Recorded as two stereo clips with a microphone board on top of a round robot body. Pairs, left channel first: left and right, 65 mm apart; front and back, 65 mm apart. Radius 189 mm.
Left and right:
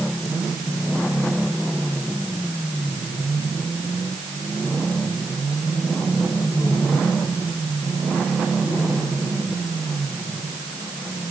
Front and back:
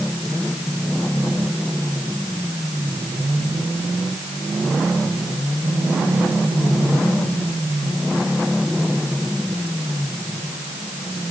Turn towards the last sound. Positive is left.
No sound to turn to.